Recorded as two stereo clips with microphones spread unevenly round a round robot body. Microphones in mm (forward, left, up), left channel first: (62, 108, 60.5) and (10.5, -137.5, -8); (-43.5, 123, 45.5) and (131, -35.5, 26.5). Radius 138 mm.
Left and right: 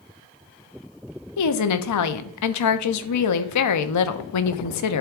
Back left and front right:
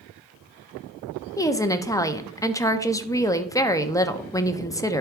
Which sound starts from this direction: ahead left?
A woman speaking, at 1.4 s.